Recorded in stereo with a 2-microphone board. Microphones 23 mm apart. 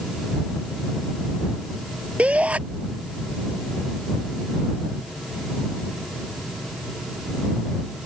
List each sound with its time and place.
2.2 s a shout: 75° right (ahead or behind)